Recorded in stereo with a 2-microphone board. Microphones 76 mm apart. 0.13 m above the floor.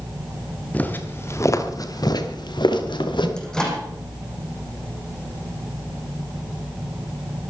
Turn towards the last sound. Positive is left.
turn(degrees=5)  # may be behind; listen again after turning